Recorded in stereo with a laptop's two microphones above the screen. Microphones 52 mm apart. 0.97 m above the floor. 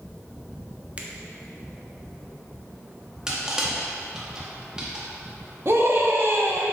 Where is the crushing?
15° right (ahead or behind), 1.8 m.